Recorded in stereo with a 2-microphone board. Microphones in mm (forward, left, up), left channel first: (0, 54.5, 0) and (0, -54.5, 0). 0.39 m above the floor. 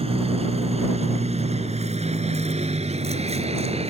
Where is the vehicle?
65° right (ahead or behind); by 3.9 s 70° right (ahead or behind).